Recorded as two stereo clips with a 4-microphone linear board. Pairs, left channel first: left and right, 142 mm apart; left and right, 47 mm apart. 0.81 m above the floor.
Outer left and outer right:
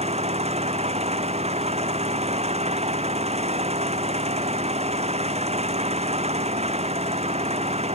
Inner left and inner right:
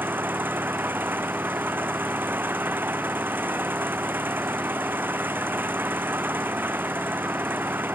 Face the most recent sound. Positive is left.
turn(degrees=-50)  # may be behind; listen again after turning